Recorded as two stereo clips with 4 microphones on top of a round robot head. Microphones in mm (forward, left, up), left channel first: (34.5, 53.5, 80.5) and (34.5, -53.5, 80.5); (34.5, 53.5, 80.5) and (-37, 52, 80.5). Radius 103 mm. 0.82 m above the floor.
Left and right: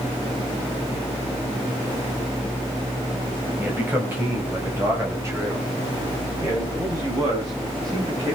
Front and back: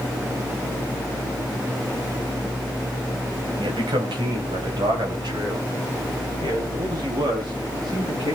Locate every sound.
3.6 s a man speaking: 165° right, 4.5 m; by 8.4 s 145° right, 8 m